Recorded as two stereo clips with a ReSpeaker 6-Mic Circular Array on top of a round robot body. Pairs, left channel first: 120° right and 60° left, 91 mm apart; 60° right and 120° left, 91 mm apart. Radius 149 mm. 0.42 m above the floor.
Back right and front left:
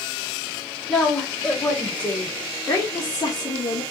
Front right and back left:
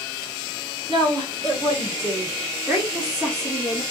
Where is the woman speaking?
150° left, 2 m; by 3.8 s 140° right, 1.6 m.